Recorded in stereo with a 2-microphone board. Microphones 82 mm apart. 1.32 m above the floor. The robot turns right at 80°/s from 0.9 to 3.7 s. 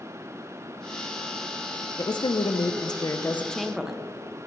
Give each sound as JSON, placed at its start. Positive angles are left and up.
{"t": 2.0, "sound": "a woman speaking", "azimuth_deg": 50, "distance_m": 0.5}